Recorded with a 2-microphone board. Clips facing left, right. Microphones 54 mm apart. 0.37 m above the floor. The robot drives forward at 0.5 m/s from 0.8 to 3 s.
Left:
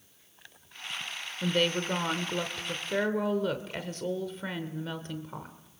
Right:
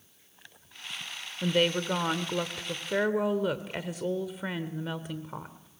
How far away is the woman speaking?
About 1.2 m.